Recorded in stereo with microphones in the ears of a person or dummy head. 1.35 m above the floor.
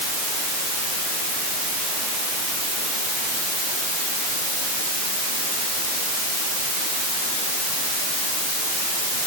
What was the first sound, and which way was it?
Only background noise.